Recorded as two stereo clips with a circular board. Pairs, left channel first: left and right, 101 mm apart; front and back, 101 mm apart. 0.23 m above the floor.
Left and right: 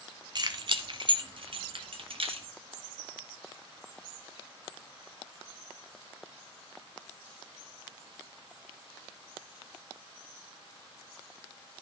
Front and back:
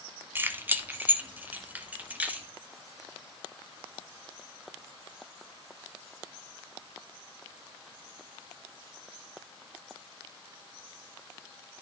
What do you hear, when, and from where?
0.3 s keys jangling: 115° right, 1.3 m; by 2.5 s 105° right, 2.5 m